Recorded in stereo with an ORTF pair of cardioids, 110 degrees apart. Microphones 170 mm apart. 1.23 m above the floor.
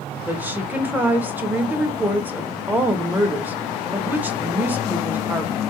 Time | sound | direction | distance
0.3 | a woman speaking | 10° right | 1.0 m